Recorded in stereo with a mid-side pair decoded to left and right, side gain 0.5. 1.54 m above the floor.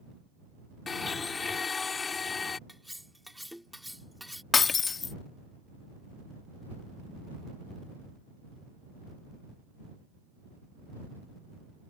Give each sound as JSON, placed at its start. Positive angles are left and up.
{"t": 0.9, "sound": "a blender", "azimuth_deg": 35}
{"t": 2.7, "sound": "cutlery clinking", "azimuth_deg": 5}
{"t": 4.5, "sound": "breaking glass", "azimuth_deg": 40}